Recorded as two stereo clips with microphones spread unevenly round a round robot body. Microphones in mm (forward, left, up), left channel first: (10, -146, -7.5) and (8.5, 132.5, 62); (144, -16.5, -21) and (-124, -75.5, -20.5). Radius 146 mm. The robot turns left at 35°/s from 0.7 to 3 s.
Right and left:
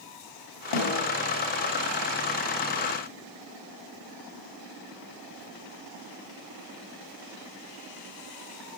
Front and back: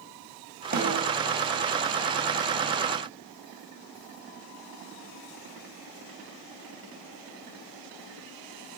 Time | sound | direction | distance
0.7 | a snare drum | 110° right | 2.5 m